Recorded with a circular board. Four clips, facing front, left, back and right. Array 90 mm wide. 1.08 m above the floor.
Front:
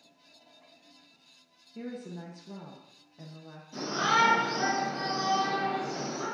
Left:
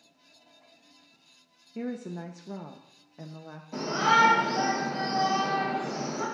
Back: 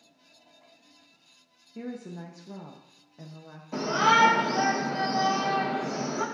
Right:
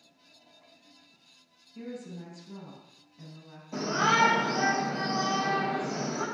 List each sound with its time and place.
1.8 s a woman speaking: 95° left, 0.8 m
3.7 s a shout: 175° right, 3.5 m